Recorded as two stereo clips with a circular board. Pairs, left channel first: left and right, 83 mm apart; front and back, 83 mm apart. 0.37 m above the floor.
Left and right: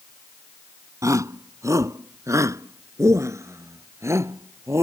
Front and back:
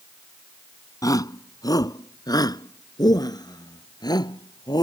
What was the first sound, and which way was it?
A shout, 40° right.